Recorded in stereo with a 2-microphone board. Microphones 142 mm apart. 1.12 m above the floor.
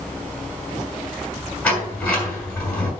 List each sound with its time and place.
1.6 s a sliding door: 10° left (ahead or behind), 4.5 m